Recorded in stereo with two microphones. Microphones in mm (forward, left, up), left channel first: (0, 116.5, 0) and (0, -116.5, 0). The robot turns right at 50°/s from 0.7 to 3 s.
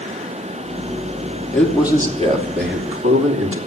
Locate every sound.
1.5 s a man speaking: 170° left, 3 m; by 3.7 s 115° right, 3 m